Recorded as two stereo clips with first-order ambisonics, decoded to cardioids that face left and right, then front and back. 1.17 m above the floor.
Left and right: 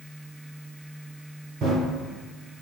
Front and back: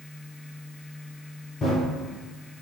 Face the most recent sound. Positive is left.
turn(degrees=-55)